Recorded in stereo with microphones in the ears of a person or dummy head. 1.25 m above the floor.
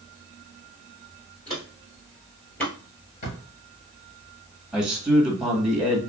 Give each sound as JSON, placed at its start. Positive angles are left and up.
{"t": 1.5, "sound": "footsteps", "side_deg": 30, "distance_m": 1.4}
{"t": 3.2, "sound": "a drawer", "side_deg": 60, "distance_m": 1.7}
{"t": 4.7, "sound": "a man speaking", "side_deg": 0, "distance_m": 1.4}